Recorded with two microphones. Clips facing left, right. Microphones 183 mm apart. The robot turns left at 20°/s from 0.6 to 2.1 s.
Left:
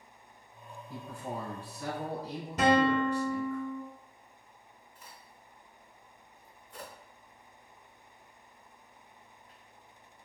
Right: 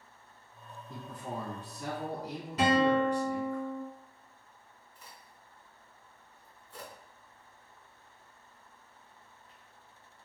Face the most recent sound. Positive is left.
turn(degrees=25)  # may be behind; listen again after turning